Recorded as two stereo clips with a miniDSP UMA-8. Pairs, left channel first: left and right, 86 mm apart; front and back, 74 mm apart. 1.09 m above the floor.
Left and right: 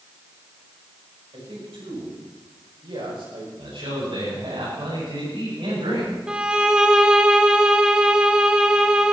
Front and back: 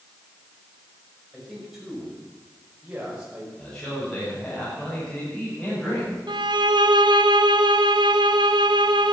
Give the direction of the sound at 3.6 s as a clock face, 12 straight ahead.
3 o'clock.